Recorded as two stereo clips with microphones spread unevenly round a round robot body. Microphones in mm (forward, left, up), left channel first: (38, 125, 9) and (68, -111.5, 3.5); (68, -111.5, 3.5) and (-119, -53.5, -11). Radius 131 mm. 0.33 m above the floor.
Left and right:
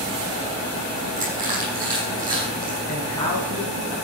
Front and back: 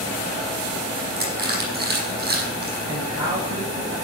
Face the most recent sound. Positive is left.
turn(degrees=125)